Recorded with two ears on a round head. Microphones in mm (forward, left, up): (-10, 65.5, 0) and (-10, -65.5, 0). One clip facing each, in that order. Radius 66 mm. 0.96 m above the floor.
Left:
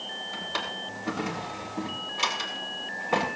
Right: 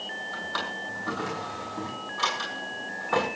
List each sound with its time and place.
0.3 s a drawer: 20° left (ahead or behind), 6.5 m